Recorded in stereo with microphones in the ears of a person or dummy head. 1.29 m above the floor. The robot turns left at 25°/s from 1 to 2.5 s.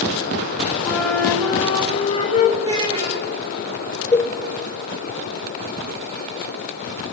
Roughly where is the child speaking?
Centre.